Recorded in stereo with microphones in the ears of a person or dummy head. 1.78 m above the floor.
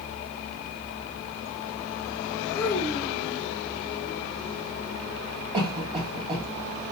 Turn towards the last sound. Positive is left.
turn(degrees=-25)  # may be behind; listen again after turning